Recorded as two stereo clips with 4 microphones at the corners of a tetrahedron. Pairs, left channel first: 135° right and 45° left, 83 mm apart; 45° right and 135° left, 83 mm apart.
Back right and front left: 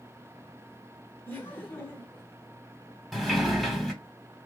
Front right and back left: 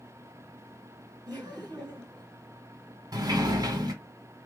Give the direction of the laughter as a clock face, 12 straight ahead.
7 o'clock.